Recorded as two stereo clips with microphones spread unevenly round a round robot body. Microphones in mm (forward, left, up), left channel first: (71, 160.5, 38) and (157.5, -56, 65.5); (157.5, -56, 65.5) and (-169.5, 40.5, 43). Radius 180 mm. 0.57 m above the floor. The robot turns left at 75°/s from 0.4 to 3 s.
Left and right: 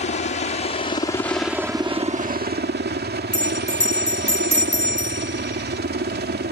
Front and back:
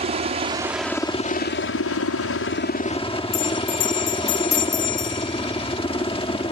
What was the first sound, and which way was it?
A helicopter, 110° left.